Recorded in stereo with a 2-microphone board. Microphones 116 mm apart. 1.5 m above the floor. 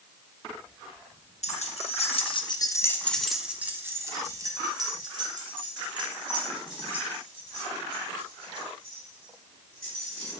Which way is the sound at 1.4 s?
65° left (ahead or behind).